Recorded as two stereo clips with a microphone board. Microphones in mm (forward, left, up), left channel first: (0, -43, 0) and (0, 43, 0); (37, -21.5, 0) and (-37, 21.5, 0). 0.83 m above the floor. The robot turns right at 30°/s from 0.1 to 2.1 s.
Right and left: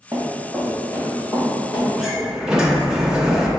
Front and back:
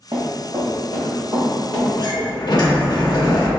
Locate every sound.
0.1 s running footsteps: 140° left, 1.9 m; by 1.9 s 145° right, 4 m
2.0 s a sliding door: 5° left, 0.5 m; by 3.5 s 10° left, 0.5 m